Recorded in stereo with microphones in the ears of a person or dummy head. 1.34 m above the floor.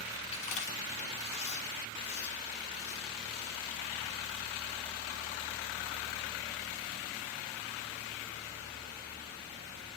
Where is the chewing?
40° left (ahead or behind), 4.5 m.